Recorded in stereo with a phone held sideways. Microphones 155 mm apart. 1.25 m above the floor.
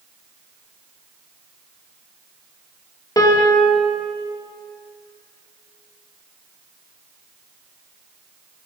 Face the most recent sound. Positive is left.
turn(degrees=25)  # may be behind; listen again after turning